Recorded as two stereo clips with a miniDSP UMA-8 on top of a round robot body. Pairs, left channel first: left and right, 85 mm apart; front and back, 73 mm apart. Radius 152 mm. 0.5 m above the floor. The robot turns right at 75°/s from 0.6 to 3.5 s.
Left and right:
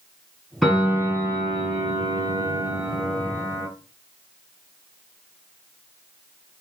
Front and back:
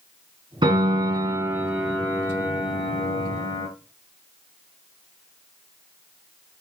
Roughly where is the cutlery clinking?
I don't hear cutlery clinking.